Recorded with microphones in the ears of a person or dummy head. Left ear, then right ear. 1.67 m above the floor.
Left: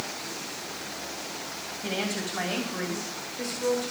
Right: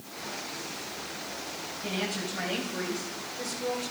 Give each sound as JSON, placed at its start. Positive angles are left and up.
{"t": 1.8, "sound": "a woman speaking", "side_deg": 30, "distance_m": 3.0}